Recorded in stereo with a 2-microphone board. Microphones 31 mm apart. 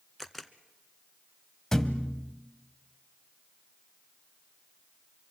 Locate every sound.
0.2 s a camera shutter: 5° left (ahead or behind), 0.9 m
1.7 s a thud: 15° left (ahead or behind), 1.0 m